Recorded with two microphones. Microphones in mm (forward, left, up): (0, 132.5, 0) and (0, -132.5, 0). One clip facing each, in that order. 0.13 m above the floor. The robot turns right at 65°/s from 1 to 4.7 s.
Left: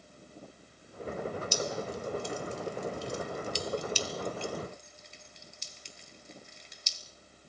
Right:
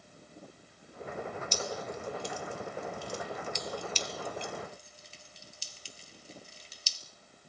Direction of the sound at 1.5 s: 10° left (ahead or behind).